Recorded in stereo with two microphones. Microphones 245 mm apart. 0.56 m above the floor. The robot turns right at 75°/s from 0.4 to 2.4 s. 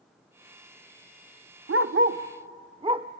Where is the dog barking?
75° right (ahead or behind), 0.6 m; by 3.1 s 25° right (ahead or behind), 0.6 m.